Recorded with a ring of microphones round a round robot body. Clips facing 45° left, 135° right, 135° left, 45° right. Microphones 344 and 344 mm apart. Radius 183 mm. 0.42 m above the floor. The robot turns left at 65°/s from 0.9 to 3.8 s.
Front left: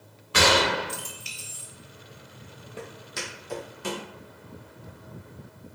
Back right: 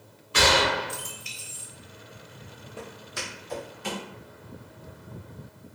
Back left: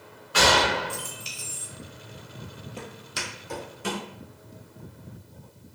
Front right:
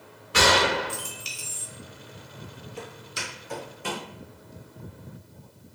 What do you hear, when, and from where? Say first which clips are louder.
0.3 s a gunshot: front left 1 dB, front right 1 dB; 20° left, 0.5 m; by 1.7 s 30° right, 0.5 m
2.8 s footsteps: front left 1 dB, even; 135° left, 0.6 m; by 4.0 s 65° left, 1.5 m